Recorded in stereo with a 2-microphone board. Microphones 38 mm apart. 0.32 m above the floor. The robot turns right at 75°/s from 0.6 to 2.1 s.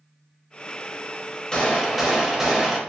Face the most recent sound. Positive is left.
turn(degrees=-165)